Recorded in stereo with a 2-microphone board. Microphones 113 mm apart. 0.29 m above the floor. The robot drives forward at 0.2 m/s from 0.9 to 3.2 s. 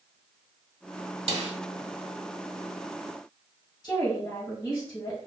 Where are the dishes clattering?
I don't hear dishes clattering.